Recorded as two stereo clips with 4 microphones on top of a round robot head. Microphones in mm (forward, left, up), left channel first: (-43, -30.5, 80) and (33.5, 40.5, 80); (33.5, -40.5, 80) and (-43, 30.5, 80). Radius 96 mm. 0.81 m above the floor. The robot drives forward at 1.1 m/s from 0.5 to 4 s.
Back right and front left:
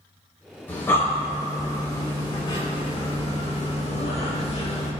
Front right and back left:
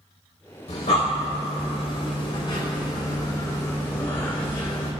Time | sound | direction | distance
0.7 | breathing | 65° right | 4.5 m